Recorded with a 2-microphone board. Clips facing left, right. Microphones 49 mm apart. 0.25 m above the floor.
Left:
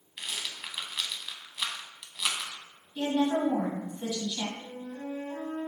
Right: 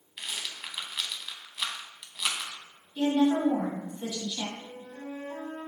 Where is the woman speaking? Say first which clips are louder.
Right 3 dB; 10° left (ahead or behind), 1.6 m.